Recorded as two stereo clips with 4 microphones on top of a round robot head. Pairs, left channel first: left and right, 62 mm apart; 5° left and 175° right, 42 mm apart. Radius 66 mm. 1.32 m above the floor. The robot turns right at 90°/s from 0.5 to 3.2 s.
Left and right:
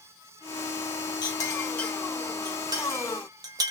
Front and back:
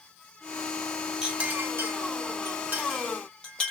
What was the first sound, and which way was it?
A clink, 110° left.